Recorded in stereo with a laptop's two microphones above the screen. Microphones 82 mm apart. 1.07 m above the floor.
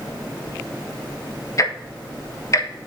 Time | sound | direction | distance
1.6 | ticking | 40° left (ahead or behind) | 1.0 m